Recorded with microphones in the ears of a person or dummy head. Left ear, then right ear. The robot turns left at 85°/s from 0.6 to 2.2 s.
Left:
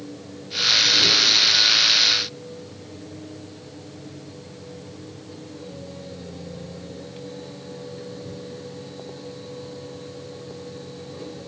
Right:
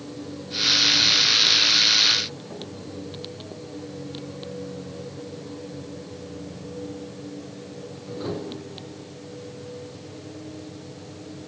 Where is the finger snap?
No finger snap in this recording.